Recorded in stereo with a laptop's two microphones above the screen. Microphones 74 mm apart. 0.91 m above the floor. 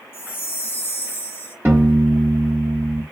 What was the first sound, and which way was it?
A chime, 30° left (ahead or behind).